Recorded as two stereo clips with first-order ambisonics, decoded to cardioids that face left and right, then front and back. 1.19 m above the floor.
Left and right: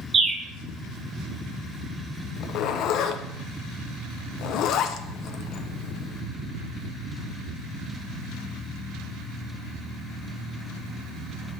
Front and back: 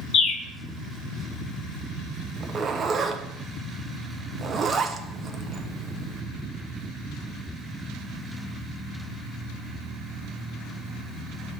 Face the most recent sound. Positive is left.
turn(degrees=115)